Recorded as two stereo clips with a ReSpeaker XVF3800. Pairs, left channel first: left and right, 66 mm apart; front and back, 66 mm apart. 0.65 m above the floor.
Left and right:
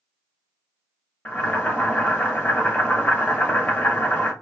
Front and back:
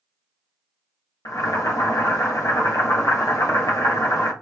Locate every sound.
1.2 s boiling: 25° left, 0.8 m